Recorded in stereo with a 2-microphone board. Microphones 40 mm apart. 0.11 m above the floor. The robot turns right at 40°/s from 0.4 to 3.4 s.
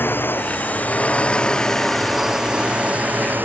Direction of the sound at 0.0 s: 115° left.